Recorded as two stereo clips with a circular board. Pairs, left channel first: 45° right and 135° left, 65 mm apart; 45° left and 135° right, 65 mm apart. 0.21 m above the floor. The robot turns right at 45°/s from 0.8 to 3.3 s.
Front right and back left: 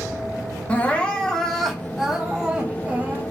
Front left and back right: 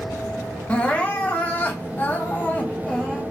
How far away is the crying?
About 0.8 m.